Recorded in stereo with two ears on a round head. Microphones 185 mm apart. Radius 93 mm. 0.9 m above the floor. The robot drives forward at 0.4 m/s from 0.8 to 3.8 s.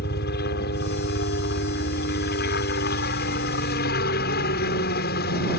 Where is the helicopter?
55° left (ahead or behind).